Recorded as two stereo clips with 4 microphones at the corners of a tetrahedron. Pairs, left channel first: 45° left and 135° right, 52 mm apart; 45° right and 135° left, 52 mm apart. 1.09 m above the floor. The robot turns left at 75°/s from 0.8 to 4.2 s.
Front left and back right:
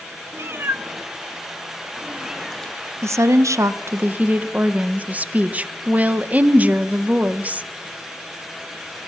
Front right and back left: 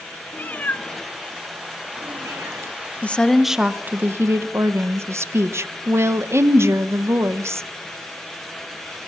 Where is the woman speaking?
105° right, 0.5 m; by 7.7 s 165° left, 0.5 m.